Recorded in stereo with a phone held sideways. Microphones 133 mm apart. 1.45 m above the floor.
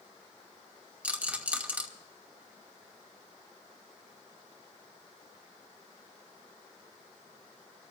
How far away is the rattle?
About 1.5 m.